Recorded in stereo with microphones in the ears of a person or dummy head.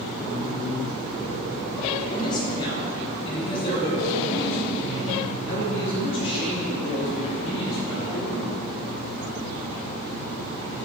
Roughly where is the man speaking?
Left.